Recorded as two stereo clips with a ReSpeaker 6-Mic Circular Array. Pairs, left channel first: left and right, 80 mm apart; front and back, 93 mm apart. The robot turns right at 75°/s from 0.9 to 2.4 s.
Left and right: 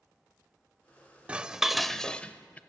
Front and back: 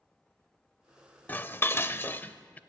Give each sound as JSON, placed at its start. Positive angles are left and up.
{"t": 1.3, "sound": "dishes clattering", "azimuth_deg": -40, "distance_m": 0.6}